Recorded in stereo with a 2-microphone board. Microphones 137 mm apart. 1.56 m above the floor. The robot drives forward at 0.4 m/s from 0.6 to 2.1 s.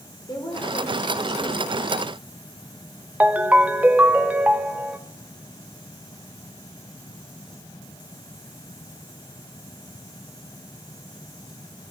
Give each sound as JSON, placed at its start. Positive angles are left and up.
{"t": 0.3, "sound": "a woman speaking", "side_deg": 30, "distance_m": 6.0}
{"t": 3.2, "sound": "a ringtone", "side_deg": -10, "distance_m": 1.1}